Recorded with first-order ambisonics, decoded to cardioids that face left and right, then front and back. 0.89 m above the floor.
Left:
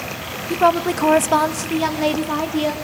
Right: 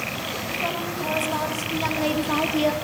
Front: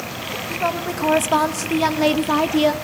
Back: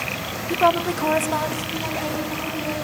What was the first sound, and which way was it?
A woman speaking, 115° left.